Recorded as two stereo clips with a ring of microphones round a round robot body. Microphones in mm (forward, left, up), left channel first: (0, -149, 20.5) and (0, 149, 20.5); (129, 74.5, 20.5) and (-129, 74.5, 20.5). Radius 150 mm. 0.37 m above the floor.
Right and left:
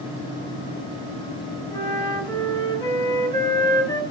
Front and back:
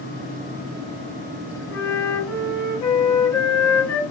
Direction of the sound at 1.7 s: 15° right.